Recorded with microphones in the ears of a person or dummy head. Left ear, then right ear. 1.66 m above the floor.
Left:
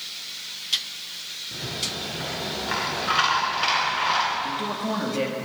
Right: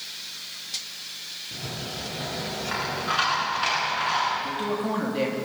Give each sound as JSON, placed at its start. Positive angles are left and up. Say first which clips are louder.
{"t": 1.5, "sound": "a rattle", "louder": "left 6 dB", "side_deg": 15, "distance_m": 8.0}
{"t": 4.4, "sound": "a man speaking", "louder": "even", "side_deg": 0, "distance_m": 3.0}